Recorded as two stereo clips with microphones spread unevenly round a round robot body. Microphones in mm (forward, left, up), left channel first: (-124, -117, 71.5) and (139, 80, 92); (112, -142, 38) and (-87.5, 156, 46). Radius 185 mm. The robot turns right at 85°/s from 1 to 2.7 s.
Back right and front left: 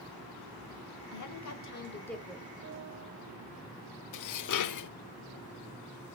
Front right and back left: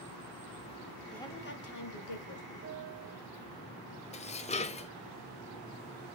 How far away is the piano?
About 1.6 m.